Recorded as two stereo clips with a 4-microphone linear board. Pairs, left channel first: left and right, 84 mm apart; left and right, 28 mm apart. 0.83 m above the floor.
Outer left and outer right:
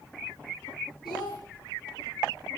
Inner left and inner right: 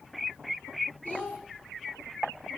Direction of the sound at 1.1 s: 75° left (ahead or behind).